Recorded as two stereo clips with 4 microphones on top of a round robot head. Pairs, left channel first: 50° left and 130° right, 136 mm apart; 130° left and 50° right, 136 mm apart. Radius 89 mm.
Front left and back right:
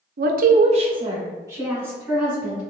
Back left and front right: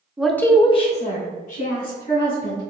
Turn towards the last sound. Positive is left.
turn(degrees=150)